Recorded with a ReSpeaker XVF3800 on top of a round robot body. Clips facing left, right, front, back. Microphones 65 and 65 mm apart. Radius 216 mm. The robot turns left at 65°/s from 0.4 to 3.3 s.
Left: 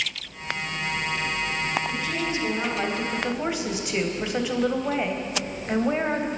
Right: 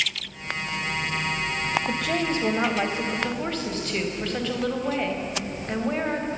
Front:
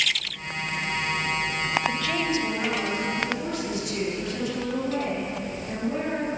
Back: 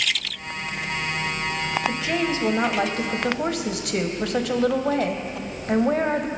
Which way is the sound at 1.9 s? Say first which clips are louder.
Right 2 dB, back 2 dB; 100° right.